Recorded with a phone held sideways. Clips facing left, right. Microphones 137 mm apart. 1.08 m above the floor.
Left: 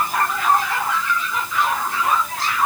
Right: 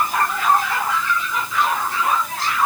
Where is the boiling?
I don't hear boiling.